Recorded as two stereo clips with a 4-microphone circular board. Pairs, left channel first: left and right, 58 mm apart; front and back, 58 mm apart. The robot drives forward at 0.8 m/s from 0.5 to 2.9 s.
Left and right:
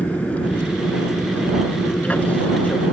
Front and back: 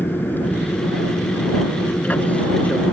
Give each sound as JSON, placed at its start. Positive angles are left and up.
{"t": 0.0, "sound": "an aircraft", "azimuth_deg": 35}